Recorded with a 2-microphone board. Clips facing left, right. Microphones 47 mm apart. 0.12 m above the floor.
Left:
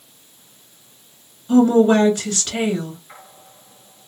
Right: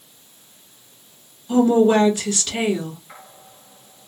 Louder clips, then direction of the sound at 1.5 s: Left 2 dB; 35° left (ahead or behind).